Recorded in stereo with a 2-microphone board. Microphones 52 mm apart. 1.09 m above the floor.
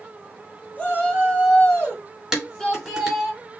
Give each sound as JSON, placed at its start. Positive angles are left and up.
{"t": 0.8, "sound": "a shout", "side_deg": 25, "distance_m": 3.0}
{"t": 2.3, "sound": "dishes clattering", "side_deg": -5, "distance_m": 3.0}